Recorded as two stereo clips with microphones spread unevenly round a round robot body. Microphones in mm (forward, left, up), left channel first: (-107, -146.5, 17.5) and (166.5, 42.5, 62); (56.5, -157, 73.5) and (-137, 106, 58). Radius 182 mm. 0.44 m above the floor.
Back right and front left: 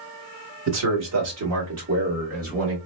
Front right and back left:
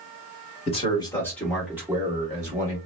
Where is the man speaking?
10° left, 1.8 m; by 2.8 s 80° left, 1.8 m.